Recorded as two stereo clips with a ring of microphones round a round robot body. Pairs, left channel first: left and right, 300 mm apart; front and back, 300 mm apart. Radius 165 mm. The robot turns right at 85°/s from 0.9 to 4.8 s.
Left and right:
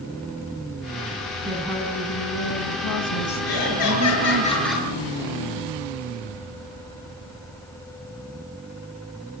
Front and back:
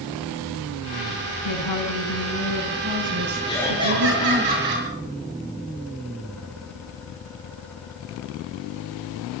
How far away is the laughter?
About 6 m.